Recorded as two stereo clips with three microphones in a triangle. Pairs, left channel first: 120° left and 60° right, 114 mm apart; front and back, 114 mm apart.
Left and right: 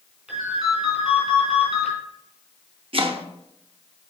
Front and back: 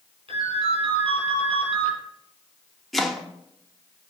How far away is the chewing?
No chewing in this recording.